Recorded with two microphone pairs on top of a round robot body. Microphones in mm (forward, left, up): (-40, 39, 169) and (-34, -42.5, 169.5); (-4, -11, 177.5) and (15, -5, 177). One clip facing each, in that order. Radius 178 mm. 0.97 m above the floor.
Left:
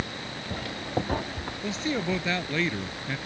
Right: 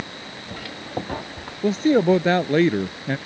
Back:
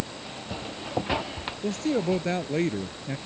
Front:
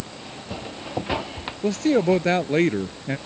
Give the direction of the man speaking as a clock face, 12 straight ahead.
1 o'clock.